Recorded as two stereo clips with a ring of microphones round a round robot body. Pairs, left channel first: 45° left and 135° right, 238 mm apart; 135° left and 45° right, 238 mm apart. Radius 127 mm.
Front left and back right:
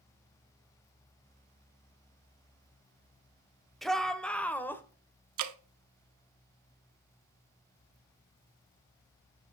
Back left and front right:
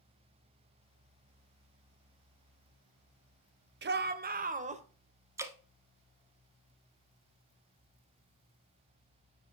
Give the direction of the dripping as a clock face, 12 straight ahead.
4 o'clock.